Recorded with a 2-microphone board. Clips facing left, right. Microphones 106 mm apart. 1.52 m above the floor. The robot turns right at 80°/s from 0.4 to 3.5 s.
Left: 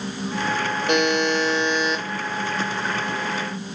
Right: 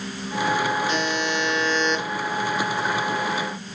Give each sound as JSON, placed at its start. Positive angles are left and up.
{"t": 0.9, "sound": "a buzzer", "azimuth_deg": 95, "distance_m": 0.7}